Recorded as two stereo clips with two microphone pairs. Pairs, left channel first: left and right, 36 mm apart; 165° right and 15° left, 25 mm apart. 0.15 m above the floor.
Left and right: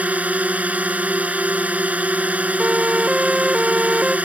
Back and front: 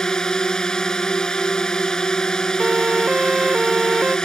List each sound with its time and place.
0.0 s a drone: 115° right
2.6 s a siren: 25° right; by 4.2 s 30° right